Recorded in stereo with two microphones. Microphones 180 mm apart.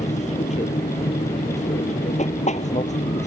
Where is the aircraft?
40° left (ahead or behind).